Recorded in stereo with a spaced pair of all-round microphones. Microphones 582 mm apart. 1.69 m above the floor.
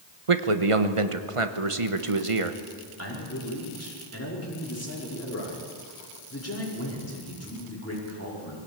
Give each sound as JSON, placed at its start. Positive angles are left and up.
{"t": 0.3, "sound": "a man speaking", "side_deg": -60, "distance_m": 1.2}
{"t": 3.0, "sound": "a man speaking", "side_deg": 25, "distance_m": 5.0}